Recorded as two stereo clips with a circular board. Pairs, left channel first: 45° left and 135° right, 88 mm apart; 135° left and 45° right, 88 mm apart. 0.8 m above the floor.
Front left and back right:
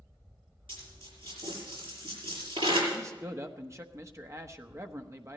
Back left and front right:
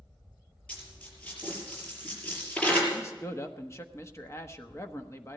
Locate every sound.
0.7 s a dropped coin: 150° right, 6 m
2.9 s a man speaking: straight behind, 1.2 m